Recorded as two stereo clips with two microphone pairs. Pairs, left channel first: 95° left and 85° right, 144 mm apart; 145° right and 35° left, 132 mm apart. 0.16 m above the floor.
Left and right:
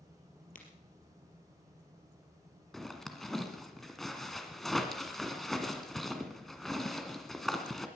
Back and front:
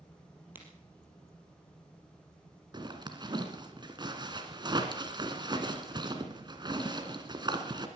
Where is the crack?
105° left, 4 m.